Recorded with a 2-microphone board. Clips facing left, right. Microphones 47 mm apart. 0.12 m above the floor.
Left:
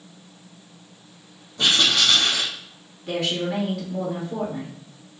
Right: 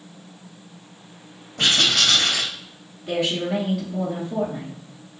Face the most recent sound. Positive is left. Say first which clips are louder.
# right 2 dB
turn(degrees=-5)  # may be behind; listen again after turning